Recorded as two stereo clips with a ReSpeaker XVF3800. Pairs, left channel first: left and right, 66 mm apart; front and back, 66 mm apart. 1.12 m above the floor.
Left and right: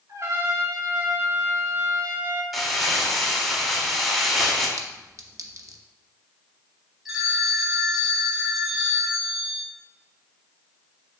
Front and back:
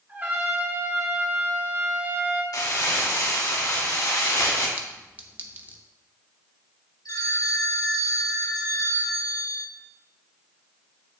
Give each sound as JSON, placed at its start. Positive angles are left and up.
{"t": 0.1, "sound": "a trumpet", "azimuth_deg": -125, "distance_m": 3.5}
{"t": 2.5, "sound": "crumpling", "azimuth_deg": 5, "distance_m": 2.0}
{"t": 4.8, "sound": "a clink", "azimuth_deg": -115, "distance_m": 0.8}
{"t": 7.0, "sound": "a phone ringing", "azimuth_deg": -5, "distance_m": 2.5}